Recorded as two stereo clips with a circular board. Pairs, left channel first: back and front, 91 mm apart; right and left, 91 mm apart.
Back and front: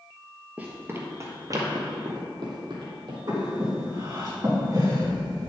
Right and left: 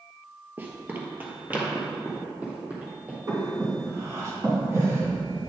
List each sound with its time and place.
0.6 s running footsteps: 55° left, 1.4 m; by 3.2 s 20° left, 3 m
3.3 s breathing: 40° left, 2.5 m